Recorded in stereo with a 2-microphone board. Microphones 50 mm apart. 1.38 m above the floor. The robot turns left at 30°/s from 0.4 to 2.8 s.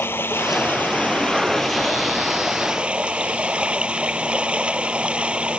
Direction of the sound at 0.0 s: 50° left.